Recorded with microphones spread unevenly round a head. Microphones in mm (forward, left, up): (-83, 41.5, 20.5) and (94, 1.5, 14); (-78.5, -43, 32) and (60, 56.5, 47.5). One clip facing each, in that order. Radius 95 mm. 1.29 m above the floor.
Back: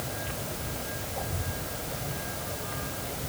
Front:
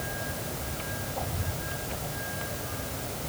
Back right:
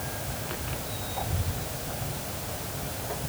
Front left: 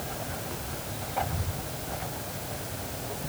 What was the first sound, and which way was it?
Only background noise.